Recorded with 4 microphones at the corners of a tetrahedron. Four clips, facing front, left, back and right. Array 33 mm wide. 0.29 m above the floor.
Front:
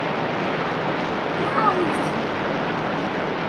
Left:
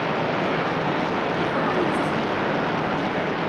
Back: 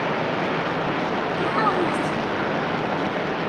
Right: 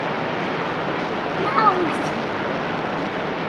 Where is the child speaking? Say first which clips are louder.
Right 9 dB, front 2 dB; 75° right, 1.4 m.